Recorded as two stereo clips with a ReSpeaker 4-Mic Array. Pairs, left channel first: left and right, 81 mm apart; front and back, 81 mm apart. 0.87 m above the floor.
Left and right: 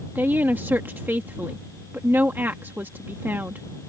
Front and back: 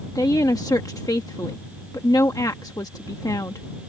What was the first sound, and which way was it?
A woman speaking, 30° right.